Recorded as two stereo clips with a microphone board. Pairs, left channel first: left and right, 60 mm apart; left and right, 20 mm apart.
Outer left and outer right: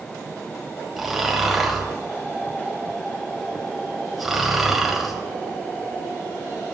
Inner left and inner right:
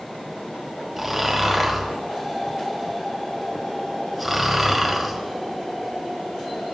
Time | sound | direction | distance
1.0 | snoring | 5° right (ahead or behind) | 1.6 m